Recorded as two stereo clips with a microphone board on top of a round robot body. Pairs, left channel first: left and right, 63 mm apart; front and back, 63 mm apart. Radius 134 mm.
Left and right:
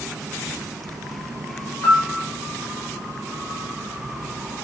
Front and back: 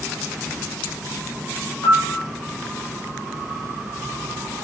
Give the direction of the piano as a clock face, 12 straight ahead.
11 o'clock.